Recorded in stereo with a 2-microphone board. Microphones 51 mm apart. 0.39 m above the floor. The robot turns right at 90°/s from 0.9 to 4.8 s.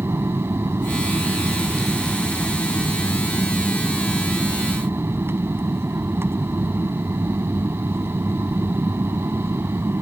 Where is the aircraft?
105° right; by 10.0 s 115° right.